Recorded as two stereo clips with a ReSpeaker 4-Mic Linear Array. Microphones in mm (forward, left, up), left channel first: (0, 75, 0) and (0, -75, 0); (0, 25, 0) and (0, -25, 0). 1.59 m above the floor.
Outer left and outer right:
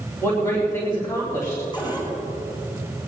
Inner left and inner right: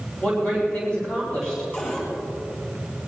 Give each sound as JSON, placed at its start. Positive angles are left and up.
{"t": 0.2, "sound": "a woman speaking", "side_deg": 20, "distance_m": 3.5}
{"t": 1.7, "sound": "a cupboard door", "side_deg": 30, "distance_m": 5.5}